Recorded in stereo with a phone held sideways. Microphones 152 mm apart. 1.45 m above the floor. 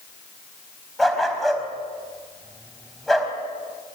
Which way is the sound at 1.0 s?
Centre (ahead or behind).